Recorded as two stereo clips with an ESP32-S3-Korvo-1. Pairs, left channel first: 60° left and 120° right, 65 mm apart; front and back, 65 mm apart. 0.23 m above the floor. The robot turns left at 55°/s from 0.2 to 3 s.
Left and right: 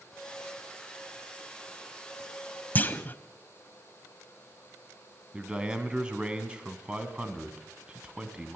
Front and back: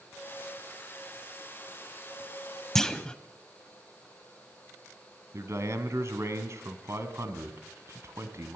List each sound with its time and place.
2.8 s a clunk: 80° left, 0.9 m; by 3.2 s 65° left, 0.9 m
5.3 s a man speaking: 170° left, 2.5 m